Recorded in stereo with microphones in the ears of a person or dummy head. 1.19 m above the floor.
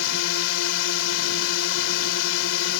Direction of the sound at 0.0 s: 80° left.